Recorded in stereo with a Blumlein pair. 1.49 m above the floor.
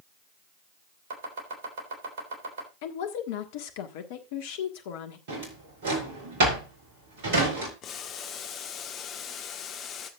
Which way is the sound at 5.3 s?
55° right.